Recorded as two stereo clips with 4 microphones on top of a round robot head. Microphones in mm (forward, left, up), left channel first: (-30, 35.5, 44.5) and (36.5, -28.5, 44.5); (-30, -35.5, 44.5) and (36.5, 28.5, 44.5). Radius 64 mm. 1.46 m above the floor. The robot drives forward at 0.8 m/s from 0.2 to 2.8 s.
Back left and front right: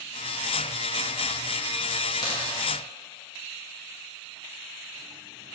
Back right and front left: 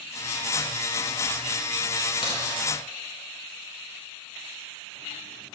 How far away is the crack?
About 2.0 m.